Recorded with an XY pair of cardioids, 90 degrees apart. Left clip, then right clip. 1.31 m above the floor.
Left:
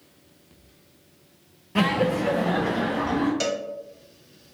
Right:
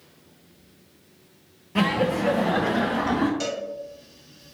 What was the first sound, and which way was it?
Laughter, 10° left.